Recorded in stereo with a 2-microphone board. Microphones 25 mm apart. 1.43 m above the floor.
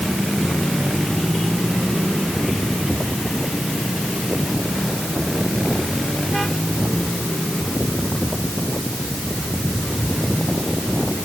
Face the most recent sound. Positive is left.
No sound to turn to.